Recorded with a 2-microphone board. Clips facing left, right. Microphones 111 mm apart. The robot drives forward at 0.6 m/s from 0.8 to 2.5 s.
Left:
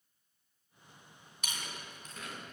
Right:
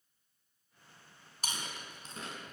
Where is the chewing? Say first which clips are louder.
Right 2 dB; 35° right (ahead or behind), 2 m; by 2.5 s 30° right (ahead or behind), 2.5 m.